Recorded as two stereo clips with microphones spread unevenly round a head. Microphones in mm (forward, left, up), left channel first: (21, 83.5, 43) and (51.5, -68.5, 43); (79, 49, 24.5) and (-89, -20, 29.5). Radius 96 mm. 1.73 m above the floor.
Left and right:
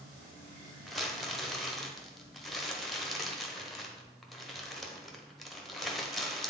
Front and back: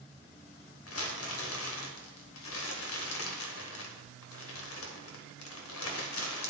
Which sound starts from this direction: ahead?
Crumpling, at 0.9 s.